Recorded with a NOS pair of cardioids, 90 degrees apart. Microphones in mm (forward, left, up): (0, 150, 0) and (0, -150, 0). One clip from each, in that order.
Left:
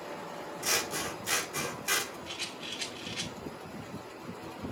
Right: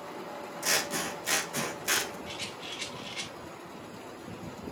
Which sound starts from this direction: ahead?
A rattle, at 2.3 s.